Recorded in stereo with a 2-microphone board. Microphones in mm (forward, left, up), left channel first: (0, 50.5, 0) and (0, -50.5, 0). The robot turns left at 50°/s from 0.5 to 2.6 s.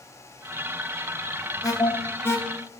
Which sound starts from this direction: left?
An alarm, at 1.6 s.